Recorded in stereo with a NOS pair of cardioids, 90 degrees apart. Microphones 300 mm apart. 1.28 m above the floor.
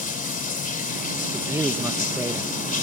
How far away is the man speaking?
About 1.7 m.